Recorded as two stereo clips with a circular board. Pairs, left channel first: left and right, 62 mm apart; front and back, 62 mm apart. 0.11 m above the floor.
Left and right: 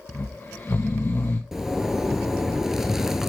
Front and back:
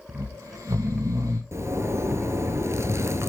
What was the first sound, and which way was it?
Snoring, 150° left.